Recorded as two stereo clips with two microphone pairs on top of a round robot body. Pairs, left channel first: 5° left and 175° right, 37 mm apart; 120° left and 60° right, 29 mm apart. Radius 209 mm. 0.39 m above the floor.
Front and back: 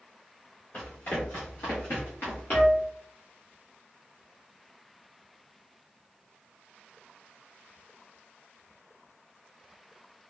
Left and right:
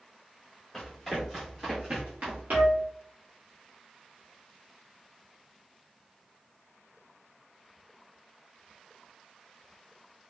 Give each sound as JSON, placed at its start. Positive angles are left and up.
{"t": 0.7, "sound": "running footsteps", "azimuth_deg": 40, "distance_m": 1.4}
{"t": 2.5, "sound": "a flute", "azimuth_deg": 15, "distance_m": 1.2}